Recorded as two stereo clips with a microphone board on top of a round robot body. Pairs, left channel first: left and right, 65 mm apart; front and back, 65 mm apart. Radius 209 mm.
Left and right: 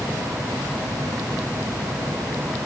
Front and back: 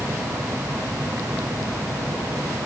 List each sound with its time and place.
Only background noise.